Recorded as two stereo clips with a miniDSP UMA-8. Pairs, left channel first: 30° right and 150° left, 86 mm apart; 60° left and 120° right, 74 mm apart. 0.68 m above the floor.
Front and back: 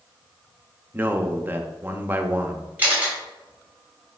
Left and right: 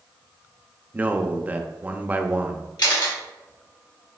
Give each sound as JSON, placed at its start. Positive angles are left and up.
{"t": 0.9, "sound": "a man speaking", "azimuth_deg": -165, "distance_m": 0.7}
{"t": 2.8, "sound": "a camera shutter", "azimuth_deg": 80, "distance_m": 3.0}